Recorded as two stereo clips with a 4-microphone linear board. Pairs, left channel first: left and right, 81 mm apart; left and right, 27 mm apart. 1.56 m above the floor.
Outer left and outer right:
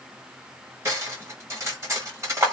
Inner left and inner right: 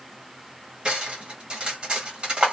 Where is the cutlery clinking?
35° right (ahead or behind), 1.5 m.